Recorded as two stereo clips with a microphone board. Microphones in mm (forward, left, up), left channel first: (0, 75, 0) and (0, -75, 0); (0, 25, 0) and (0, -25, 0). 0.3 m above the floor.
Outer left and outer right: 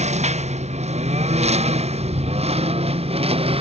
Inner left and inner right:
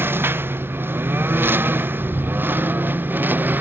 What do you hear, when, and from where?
0.0 s a lawn mower: 50° right (ahead or behind); by 3.6 s 40° right (ahead or behind)